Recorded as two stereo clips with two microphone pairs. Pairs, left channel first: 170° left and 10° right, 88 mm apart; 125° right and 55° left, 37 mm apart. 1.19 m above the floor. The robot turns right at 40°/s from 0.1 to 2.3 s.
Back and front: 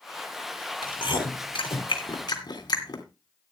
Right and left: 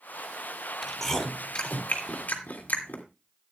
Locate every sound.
0.8 s chewing: 145° left, 2.5 m; by 3.0 s 155° right, 2.5 m